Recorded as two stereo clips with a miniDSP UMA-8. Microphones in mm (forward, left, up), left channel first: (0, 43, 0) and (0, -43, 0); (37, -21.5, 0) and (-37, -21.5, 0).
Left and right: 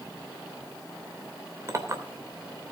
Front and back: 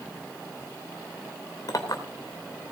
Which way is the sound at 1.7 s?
35° right.